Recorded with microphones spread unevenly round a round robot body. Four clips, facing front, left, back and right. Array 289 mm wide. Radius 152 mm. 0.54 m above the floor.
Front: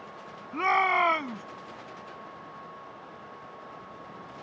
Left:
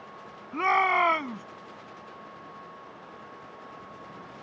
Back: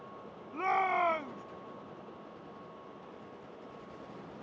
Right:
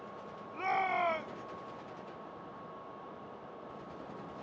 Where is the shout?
60° left.